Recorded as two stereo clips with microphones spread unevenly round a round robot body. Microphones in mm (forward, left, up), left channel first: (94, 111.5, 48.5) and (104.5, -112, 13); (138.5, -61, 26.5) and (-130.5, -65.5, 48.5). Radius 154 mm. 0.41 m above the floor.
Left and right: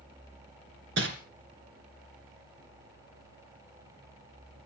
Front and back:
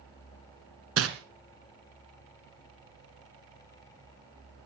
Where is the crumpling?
145° right, 2 m.